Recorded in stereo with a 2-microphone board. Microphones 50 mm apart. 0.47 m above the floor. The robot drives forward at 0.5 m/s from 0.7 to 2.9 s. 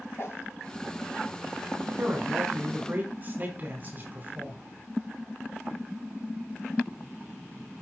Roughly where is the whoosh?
Left.